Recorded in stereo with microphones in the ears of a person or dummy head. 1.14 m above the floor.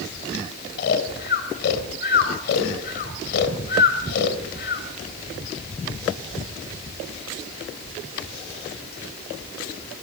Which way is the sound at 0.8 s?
55° left (ahead or behind).